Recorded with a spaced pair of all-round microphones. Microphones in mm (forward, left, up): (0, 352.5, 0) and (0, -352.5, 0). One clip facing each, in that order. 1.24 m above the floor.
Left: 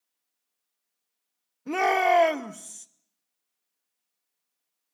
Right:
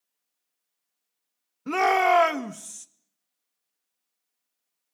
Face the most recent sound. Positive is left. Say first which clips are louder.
# right 1 dB
turn(degrees=-40)  # may be behind; listen again after turning